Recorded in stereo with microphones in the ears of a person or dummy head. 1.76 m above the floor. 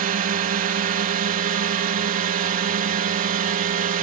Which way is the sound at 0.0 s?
45° right (ahead or behind).